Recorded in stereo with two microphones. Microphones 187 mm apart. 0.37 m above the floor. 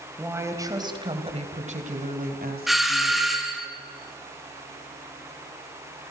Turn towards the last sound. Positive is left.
turn(degrees=0)  # may be behind; listen again after turning